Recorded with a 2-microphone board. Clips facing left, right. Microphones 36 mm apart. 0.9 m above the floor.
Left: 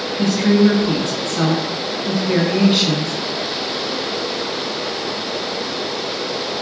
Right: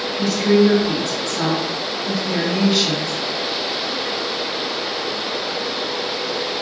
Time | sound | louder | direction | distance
0.2 | a woman speaking | left 1 dB | 45° left (ahead or behind) | 0.9 m